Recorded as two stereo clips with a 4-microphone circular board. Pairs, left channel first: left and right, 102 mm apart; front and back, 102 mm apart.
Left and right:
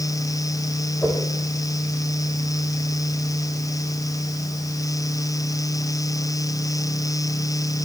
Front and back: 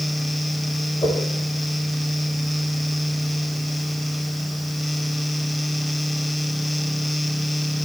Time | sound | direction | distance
1.0 | a whoosh | 20° left | 9.5 m